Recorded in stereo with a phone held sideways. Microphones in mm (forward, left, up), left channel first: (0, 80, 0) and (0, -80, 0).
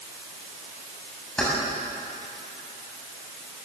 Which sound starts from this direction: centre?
Keys jangling, at 1.4 s.